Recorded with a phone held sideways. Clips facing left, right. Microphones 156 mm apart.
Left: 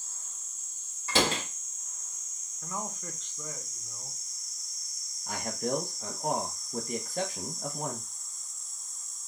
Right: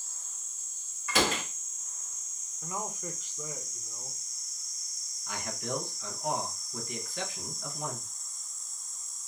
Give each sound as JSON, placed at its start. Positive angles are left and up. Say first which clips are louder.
{"t": 1.1, "sound": "a door slam", "louder": "left 1 dB", "side_deg": 30, "distance_m": 1.2}
{"t": 2.6, "sound": "a man speaking", "louder": "right 1 dB", "side_deg": -10, "distance_m": 1.0}
{"t": 5.3, "sound": "a man speaking", "louder": "left 5 dB", "side_deg": 40, "distance_m": 0.9}